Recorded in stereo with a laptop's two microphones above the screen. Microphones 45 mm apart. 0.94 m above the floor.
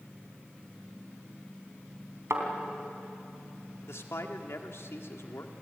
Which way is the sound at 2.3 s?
85° right.